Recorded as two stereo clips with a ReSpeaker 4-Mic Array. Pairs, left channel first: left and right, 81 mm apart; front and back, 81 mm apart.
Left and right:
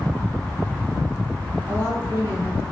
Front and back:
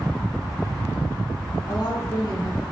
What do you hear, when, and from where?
1.7 s a woman speaking: 35° left, 5 m